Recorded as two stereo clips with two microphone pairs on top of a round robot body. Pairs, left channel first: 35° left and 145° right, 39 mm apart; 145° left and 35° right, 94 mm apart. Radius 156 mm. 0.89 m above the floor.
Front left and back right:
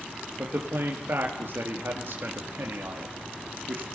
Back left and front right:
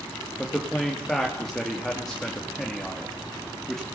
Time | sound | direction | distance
0.4 | a man speaking | 130° right | 2.5 m